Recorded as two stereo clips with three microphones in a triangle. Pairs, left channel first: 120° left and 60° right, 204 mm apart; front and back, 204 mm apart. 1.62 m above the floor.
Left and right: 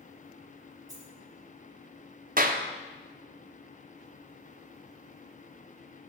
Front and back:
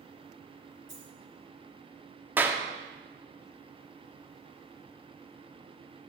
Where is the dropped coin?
10° left, 3.5 m.